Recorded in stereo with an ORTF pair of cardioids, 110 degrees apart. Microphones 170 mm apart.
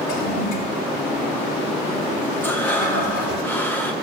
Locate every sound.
0.1 s a toilet flushing: 65° left, 5 m
2.4 s breathing: 10° left, 1.9 m